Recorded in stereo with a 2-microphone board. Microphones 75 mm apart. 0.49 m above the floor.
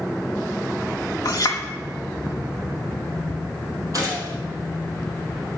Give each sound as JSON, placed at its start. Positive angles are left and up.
{"t": 1.2, "sound": "a clink", "side_deg": 60, "distance_m": 1.1}
{"t": 3.9, "sound": "a gunshot", "side_deg": -50, "distance_m": 3.0}